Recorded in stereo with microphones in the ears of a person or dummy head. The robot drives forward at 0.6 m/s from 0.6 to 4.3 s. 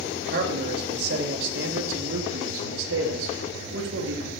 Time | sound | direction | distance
0.2 | a man speaking | 60° right (ahead or behind) | 2.5 m